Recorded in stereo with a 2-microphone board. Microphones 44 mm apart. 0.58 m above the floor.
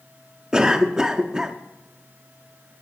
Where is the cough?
15° right (ahead or behind), 0.7 m.